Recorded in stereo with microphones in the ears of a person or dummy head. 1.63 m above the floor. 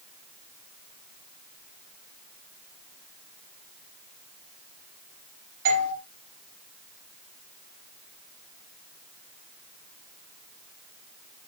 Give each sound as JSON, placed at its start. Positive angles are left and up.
{"t": 5.7, "sound": "a doorbell", "side_deg": -60, "distance_m": 5.0}